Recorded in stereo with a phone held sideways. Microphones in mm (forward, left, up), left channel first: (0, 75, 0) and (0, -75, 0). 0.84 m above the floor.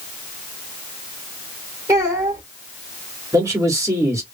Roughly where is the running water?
No running water in this recording.